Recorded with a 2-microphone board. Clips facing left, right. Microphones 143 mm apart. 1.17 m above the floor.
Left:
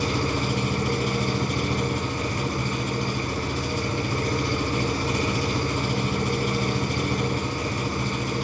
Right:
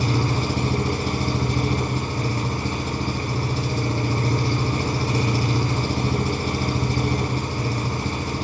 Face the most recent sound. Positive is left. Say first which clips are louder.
# right 2 dB
turn(degrees=-35)  # may be behind; listen again after turning